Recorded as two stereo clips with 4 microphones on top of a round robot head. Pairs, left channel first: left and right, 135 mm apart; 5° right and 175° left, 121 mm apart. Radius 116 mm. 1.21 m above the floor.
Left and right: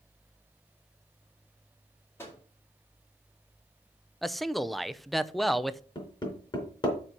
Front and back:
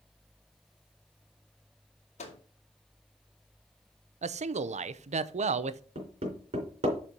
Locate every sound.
2.2 s a microwave: 15° left, 2.5 m
4.2 s a man speaking: straight behind, 0.6 m
6.0 s hammering: 145° left, 3.5 m